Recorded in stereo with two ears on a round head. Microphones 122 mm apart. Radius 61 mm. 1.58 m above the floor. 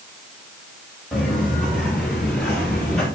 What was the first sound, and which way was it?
Footsteps, centre (ahead or behind).